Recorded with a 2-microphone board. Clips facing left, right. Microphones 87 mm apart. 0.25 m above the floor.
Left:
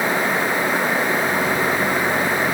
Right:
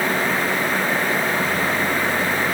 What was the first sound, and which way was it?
Only background noise.